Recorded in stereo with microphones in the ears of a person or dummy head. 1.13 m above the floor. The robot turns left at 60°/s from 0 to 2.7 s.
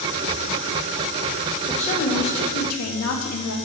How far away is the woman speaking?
About 1.7 m.